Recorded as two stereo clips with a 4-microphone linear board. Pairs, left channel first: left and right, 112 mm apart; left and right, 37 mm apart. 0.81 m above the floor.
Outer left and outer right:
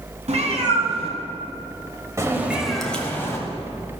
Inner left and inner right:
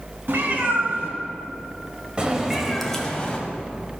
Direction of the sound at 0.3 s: 75° right (ahead or behind).